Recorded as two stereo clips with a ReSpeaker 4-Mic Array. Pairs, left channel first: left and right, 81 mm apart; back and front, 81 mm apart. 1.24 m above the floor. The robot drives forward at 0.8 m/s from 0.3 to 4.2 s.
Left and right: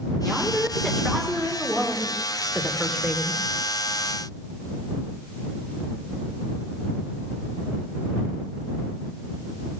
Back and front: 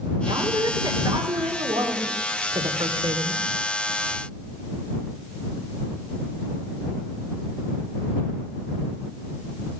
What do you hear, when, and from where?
0.2 s a woman speaking: 5° left, 3 m; by 3.4 s 15° left, 0.8 m